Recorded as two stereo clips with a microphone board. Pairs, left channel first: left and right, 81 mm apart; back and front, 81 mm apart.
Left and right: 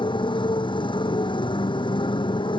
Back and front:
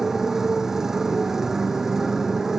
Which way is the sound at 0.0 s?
85° left.